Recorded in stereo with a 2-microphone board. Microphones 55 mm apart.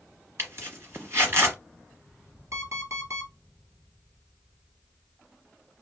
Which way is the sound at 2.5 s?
65° right (ahead or behind).